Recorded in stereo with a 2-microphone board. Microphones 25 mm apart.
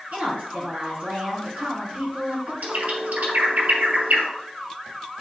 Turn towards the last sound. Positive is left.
turn(degrees=-75)  # may be behind; listen again after turning